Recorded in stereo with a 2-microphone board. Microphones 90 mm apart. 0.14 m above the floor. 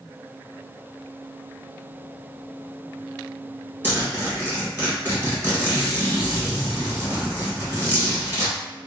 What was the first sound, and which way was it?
A zipper, 20° right (ahead or behind).